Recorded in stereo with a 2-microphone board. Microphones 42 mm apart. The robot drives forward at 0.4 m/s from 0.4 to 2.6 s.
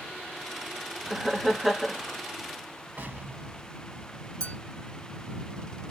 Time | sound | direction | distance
1.1 | laughter | 5° right (ahead or behind) | 0.5 m
3.0 | an explosion | 50° right (ahead or behind) | 0.6 m
4.4 | a clink | 20° left (ahead or behind) | 1.0 m